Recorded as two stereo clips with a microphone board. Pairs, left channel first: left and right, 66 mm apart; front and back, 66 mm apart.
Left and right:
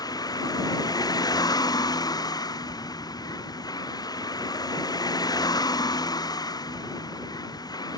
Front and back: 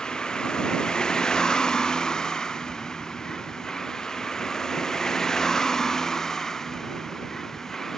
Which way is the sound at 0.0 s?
80° left.